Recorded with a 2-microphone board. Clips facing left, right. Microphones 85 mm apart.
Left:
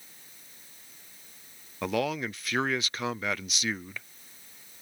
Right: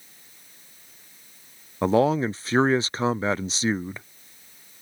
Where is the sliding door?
I don't hear a sliding door.